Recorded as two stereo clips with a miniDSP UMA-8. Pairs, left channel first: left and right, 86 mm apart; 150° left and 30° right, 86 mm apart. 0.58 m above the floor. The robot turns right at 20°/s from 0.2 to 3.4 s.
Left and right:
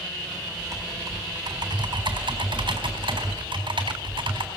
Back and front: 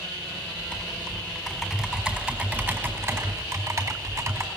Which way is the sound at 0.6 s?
140° right.